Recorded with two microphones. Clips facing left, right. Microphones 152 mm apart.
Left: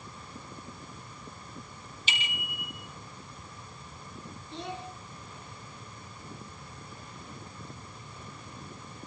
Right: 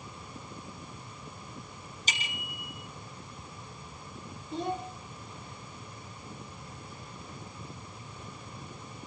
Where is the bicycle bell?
40° right (ahead or behind), 5 m.